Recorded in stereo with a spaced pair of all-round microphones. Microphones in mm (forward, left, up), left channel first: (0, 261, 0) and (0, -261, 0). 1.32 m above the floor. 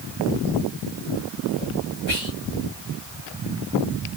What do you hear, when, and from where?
2.1 s whispering: 60° left (ahead or behind), 1.9 m